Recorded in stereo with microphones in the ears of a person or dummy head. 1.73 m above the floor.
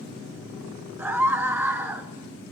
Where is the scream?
10° right (ahead or behind), 1.0 m.